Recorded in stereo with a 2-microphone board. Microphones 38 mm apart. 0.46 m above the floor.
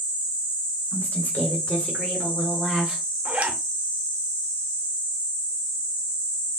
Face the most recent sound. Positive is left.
turn(degrees=-45)  # may be behind; listen again after turning